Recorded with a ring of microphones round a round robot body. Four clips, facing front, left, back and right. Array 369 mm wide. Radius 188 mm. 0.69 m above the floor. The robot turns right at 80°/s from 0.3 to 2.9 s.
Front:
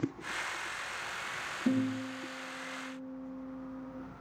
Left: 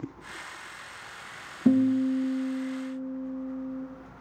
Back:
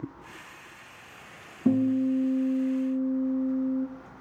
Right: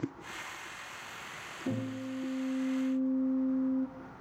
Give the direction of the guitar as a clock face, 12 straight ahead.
8 o'clock.